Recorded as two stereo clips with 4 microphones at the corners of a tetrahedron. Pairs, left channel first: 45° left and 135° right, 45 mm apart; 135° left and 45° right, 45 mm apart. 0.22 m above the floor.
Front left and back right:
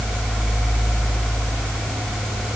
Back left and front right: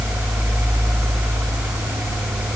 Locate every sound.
Only background noise.